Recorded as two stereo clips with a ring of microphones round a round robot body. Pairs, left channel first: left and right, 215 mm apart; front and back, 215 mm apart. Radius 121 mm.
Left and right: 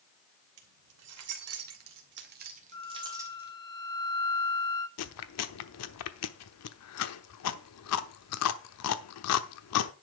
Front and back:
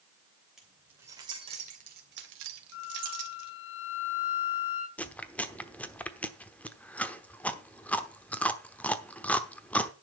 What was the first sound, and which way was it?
Keys jangling, 90° right.